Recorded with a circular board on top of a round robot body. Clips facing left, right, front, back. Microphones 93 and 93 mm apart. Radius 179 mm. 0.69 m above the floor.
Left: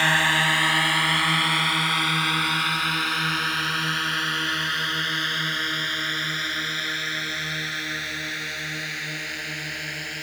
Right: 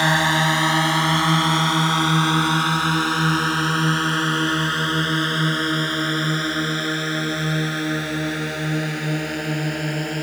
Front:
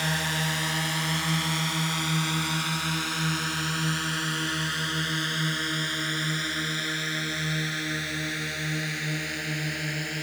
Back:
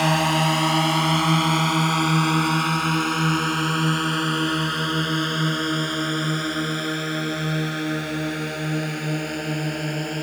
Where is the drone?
160° right; by 10.2 s 140° right.